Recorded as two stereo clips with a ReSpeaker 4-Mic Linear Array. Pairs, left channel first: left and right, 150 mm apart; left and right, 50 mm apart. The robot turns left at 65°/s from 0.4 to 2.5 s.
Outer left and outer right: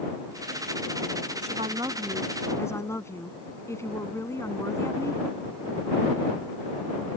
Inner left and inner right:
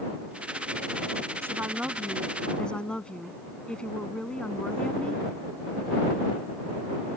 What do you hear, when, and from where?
1.4 s a woman speaking: 125° right; by 5.2 s 160° left